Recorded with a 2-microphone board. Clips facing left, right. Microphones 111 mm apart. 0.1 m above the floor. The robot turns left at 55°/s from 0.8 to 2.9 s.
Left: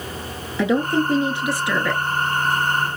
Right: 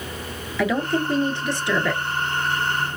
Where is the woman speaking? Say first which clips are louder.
Left 3 dB; 55° left, 1.2 m; by 2.0 s 10° right, 1.2 m.